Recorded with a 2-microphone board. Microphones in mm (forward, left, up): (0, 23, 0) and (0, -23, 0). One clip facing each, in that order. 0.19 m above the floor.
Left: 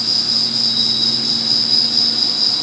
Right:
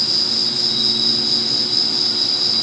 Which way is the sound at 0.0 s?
65° left (ahead or behind).